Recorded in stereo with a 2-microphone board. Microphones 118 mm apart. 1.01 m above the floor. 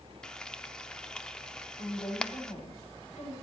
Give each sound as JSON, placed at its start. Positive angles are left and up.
{"t": 0.2, "sound": "frying", "side_deg": 5, "distance_m": 0.6}
{"t": 1.8, "sound": "a woman speaking", "side_deg": 85, "distance_m": 5.5}